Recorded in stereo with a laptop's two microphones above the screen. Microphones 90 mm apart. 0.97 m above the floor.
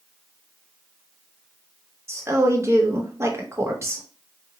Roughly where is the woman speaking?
Right.